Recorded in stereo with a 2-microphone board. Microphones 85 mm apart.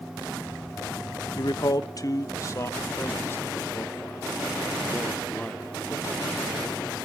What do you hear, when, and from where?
1.4 s a man speaking: 60° left (ahead or behind), 0.9 m; by 6.6 s 15° left (ahead or behind), 3 m